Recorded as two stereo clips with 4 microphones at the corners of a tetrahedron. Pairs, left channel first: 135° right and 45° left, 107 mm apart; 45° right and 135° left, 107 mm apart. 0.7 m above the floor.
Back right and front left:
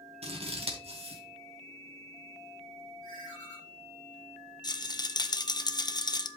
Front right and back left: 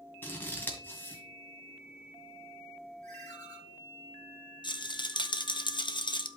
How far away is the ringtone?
About 5.5 m.